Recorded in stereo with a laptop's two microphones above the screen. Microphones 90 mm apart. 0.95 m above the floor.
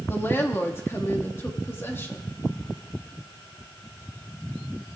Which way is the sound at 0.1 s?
25° left (ahead or behind).